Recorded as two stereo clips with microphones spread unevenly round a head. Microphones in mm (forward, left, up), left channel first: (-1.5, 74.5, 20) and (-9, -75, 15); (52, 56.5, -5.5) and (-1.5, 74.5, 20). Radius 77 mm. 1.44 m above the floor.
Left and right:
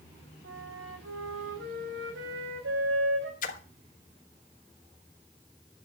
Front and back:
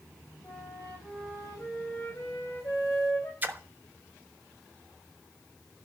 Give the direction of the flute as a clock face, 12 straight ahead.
3 o'clock.